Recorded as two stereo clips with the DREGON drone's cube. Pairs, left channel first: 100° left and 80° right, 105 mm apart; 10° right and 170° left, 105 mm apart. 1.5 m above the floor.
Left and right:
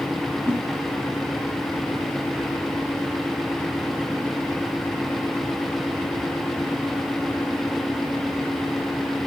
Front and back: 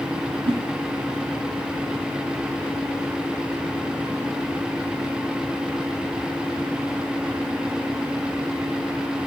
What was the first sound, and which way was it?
A whoosh, 170° left.